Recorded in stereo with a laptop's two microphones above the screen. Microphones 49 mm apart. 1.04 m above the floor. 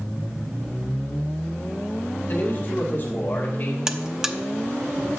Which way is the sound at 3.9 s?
15° right (ahead or behind).